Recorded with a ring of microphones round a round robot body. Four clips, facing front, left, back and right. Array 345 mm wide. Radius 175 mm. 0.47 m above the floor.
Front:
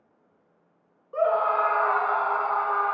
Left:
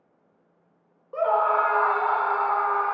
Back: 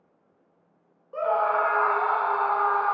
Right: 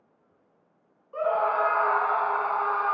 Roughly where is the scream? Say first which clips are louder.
Left 3 dB, front 1 dB; left.